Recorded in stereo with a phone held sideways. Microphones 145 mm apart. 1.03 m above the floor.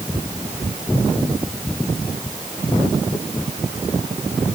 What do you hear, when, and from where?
Only background noise.